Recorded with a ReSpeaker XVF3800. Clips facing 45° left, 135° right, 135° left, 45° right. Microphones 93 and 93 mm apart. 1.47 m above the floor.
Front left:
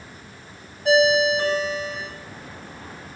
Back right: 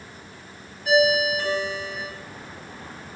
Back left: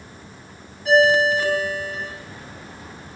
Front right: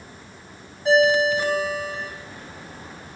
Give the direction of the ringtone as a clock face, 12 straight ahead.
11 o'clock.